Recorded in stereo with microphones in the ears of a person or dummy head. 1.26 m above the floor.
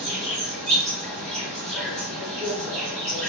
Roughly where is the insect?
Centre.